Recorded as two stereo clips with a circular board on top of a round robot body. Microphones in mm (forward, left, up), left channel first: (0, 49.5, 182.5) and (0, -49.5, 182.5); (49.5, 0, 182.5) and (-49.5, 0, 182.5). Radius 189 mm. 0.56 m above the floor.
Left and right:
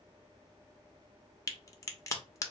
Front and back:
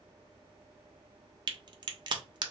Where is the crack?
145° left, 0.9 m.